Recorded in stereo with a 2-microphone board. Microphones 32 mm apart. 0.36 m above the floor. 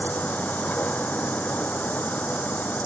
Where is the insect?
65° left (ahead or behind).